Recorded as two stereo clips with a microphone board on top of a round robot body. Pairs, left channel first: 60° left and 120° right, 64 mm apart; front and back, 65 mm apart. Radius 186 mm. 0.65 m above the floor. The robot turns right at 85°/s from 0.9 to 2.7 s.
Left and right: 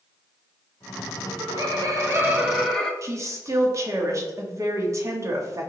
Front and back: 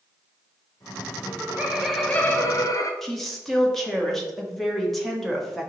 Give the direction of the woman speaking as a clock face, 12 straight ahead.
3 o'clock.